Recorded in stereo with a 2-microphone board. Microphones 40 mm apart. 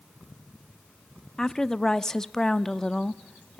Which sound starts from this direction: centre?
A woman speaking, at 1.4 s.